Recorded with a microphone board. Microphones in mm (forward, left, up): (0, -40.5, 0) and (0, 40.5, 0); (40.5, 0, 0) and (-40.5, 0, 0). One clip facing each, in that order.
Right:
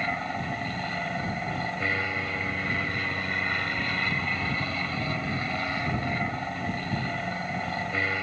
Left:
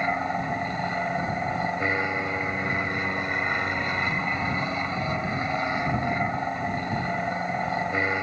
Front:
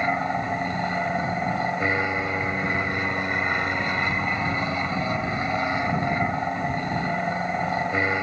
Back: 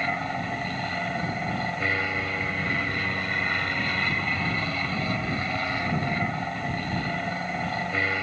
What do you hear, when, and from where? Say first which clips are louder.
0.0 s an aircraft: left 4 dB, front 4 dB; 45° left